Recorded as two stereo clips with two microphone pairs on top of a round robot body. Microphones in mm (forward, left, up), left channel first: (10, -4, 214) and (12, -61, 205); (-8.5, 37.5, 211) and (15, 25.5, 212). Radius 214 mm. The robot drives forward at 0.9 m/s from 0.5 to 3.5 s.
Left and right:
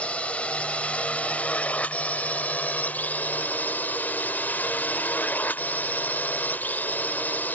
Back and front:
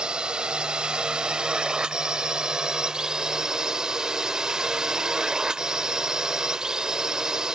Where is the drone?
25° left; by 7.6 s 30° left.